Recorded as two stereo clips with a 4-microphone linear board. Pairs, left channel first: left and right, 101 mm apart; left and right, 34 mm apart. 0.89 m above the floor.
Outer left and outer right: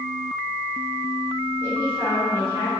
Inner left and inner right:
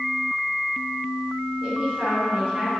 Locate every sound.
1.6 s a man speaking: 25° right (ahead or behind), 3 m; by 2.7 s 30° right (ahead or behind), 4 m